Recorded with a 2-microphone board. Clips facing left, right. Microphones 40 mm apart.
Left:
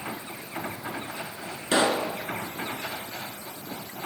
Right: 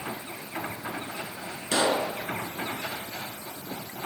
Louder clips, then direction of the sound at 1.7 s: Left 2 dB; 25° left (ahead or behind).